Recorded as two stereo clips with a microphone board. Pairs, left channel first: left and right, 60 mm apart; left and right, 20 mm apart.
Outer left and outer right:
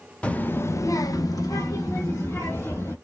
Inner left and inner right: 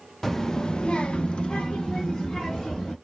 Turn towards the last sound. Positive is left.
turn(degrees=50)  # may be behind; listen again after turning